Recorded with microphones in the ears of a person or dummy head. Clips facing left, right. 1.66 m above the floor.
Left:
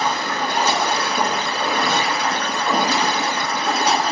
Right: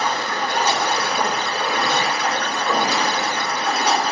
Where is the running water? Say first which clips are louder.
Left 1 dB; 70° left (ahead or behind), 1.9 m.